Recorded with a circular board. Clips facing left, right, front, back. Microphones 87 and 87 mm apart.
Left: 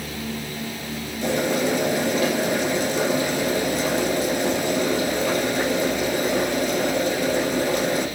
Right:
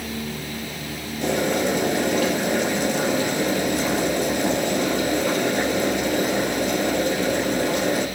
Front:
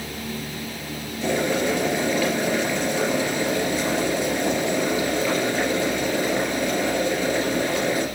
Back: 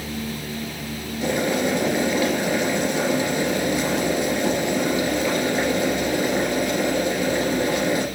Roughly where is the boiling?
Right.